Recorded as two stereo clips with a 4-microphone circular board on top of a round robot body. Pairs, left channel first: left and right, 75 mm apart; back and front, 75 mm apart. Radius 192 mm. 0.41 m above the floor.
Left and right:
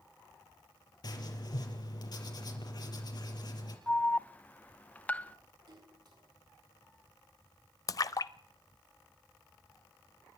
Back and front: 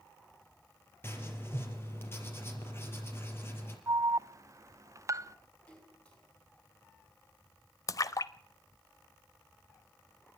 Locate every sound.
1.0 s writing: 120° left, 4.5 m
3.9 s an alarm: 25° left, 0.9 m
5.7 s a splash: 105° right, 6.5 m
7.9 s a splash: 135° left, 0.5 m